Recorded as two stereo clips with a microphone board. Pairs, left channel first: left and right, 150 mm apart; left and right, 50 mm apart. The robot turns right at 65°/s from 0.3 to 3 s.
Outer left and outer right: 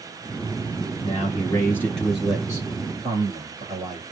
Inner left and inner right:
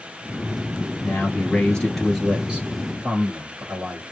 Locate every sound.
1.0 s a man speaking: 110° left, 1.4 m; by 4.0 s 120° right, 1.4 m